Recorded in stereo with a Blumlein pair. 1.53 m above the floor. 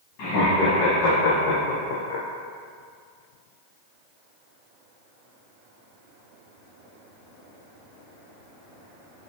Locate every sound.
0.2 s laughter: 40° left, 1.8 m; by 2.2 s 50° left, 0.5 m